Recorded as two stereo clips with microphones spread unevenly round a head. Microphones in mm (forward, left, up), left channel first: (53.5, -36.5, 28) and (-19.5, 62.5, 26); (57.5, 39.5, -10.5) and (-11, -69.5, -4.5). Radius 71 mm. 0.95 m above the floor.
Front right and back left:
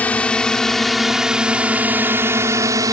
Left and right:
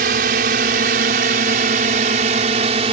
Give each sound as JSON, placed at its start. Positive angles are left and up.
{"t": 0.0, "sound": "a drone", "azimuth_deg": -135}